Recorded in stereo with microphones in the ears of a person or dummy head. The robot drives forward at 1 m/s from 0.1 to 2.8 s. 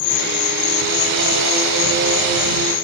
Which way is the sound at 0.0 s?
60° left (ahead or behind).